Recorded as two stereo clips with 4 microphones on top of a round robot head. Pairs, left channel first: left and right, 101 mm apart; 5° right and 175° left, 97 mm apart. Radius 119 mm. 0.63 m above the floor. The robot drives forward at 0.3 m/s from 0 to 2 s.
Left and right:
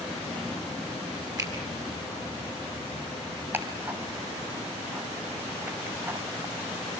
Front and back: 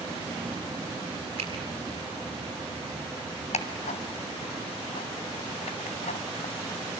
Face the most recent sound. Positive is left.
turn(degrees=-15)